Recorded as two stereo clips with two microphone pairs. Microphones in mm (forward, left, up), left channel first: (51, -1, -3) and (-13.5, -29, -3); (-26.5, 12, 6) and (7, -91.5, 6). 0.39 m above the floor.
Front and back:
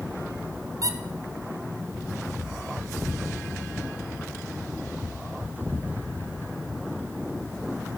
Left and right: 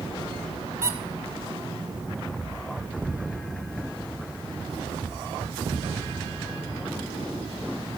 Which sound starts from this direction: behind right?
A squeak, at 0.8 s.